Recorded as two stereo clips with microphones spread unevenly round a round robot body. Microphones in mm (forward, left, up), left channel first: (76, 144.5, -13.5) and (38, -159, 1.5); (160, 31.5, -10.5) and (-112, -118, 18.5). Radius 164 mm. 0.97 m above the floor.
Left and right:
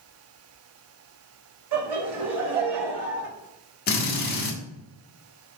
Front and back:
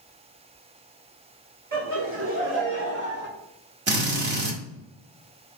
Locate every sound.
1.7 s laughter: 100° right, 3.5 m; by 3.3 s 95° right, 2.5 m
3.9 s a drill: 145° left, 1.6 m